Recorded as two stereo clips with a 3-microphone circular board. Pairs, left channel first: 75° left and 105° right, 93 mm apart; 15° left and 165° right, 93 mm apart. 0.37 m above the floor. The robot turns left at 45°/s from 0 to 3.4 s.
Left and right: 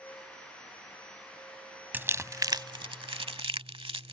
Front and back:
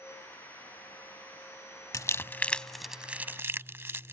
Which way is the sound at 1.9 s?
35° right.